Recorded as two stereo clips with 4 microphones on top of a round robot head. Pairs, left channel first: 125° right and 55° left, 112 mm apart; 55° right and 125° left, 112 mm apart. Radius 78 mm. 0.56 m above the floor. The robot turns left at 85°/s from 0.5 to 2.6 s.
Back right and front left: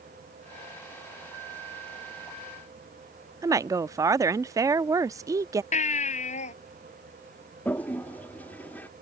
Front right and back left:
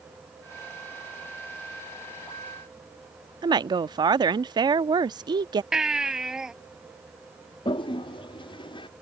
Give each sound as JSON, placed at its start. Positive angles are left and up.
{"t": 3.4, "sound": "a woman speaking", "azimuth_deg": 100}
{"t": 5.7, "sound": "a baby crying", "azimuth_deg": -150}
{"t": 7.7, "sound": "a toilet flushing", "azimuth_deg": -55}